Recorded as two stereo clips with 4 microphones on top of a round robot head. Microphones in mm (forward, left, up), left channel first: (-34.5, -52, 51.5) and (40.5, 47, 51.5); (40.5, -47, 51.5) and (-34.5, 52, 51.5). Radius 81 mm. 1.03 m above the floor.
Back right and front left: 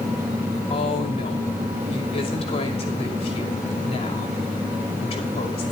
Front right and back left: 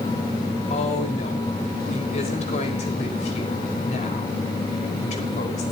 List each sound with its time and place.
0.7 s a woman speaking: 85° right, 5.5 m